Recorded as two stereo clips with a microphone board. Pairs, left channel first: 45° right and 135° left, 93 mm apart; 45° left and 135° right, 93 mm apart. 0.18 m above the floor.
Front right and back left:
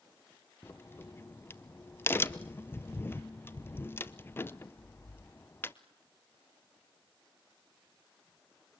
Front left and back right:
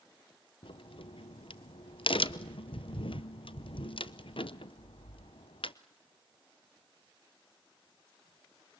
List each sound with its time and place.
0.6 s a crack: 20° left, 0.8 m